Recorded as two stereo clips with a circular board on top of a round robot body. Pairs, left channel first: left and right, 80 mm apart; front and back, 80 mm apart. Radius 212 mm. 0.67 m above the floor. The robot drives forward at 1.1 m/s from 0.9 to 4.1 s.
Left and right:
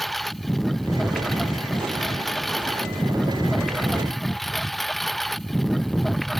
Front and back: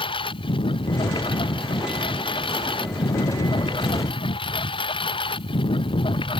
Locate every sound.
0.0 s a lawn mower: straight ahead